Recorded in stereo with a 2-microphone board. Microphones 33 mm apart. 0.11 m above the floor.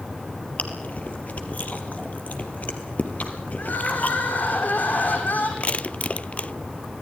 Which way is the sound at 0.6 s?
50° left (ahead or behind).